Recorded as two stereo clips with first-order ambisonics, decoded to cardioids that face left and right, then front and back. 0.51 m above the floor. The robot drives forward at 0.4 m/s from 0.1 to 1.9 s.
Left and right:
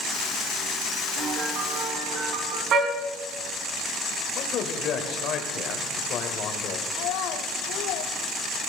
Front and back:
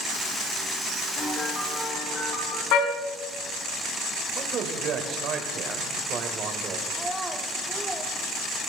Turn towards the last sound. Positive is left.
turn(degrees=90)